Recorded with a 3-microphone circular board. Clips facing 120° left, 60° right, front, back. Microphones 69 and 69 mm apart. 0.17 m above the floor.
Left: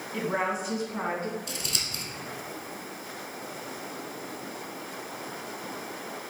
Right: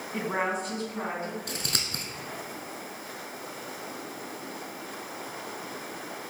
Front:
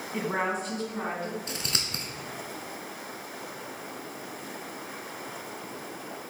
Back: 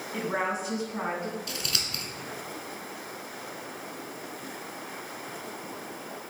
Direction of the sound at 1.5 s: 50° right.